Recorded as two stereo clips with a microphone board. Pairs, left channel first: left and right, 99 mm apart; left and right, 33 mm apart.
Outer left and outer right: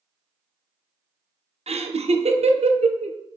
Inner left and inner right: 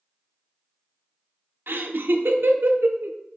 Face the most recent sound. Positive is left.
turn(degrees=-90)